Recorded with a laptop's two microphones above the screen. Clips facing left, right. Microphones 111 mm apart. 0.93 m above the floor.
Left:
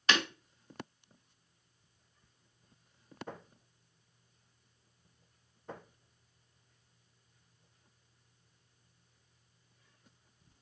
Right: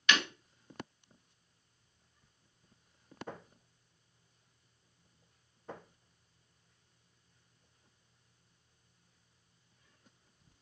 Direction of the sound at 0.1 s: 35° left (ahead or behind).